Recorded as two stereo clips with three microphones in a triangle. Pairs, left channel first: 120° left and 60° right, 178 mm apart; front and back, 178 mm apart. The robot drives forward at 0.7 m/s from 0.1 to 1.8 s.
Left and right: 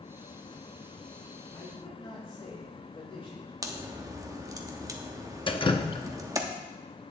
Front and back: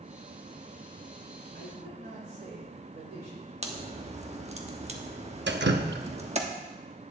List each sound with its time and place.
1.5 s a man speaking: straight behind, 5.5 m
3.6 s a crack: 130° right, 1.2 m
5.5 s dripping: 175° right, 0.8 m